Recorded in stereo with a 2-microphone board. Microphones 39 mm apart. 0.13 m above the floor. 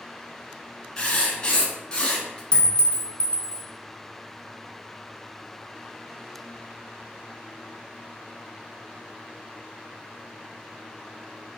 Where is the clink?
25° left (ahead or behind), 0.7 m.